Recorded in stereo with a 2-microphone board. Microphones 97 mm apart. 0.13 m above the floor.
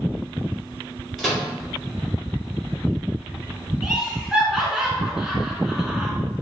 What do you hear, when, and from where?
1.2 s a microwave: centre (ahead or behind), 1.7 m
3.8 s laughter: 5° right (ahead or behind), 1.2 m